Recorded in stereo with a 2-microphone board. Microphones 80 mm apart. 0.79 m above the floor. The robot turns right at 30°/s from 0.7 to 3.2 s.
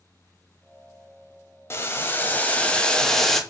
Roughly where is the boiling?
Behind left.